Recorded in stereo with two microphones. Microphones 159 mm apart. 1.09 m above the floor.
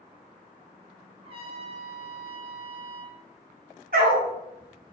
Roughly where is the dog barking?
Right.